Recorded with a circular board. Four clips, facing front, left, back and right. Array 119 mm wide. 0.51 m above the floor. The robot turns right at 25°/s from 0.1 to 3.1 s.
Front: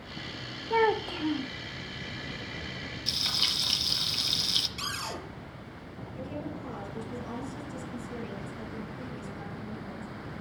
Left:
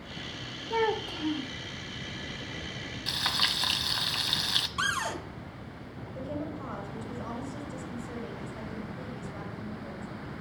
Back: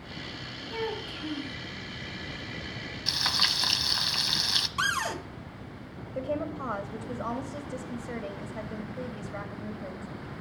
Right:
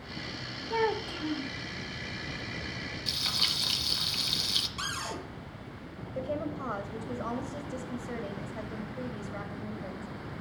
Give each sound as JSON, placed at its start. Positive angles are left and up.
{"t": 0.7, "sound": "a child speaking", "azimuth_deg": 5, "distance_m": 1.1}
{"t": 3.1, "sound": "frying", "azimuth_deg": 135, "distance_m": 1.1}
{"t": 4.8, "sound": "a cupboard door", "azimuth_deg": 150, "distance_m": 2.5}
{"t": 6.2, "sound": "a woman speaking", "azimuth_deg": -155, "distance_m": 2.5}